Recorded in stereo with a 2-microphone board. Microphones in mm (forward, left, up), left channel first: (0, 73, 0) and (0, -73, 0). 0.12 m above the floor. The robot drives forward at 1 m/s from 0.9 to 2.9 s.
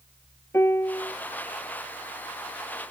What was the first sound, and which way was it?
A piano, 15° left (ahead or behind).